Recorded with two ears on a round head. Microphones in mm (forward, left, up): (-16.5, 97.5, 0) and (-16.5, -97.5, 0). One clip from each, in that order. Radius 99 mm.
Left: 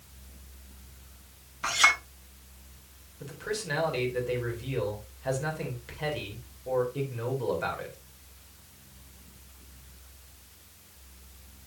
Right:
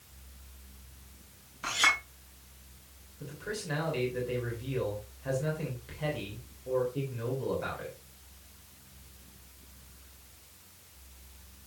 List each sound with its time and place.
1.6 s a clink: 20° left (ahead or behind), 3.5 m
3.2 s a man speaking: 30° left (ahead or behind), 3.5 m